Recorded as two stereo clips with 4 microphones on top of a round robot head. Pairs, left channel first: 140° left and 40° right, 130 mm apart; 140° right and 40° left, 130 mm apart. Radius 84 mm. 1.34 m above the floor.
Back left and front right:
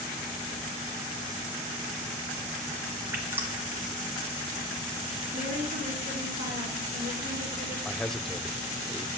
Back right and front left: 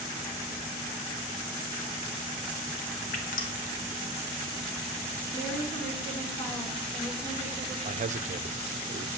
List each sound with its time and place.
3.1 s dripping: 115° right, 2 m
5.3 s a woman speaking: 65° right, 4.5 m
7.8 s a man speaking: 55° left, 0.7 m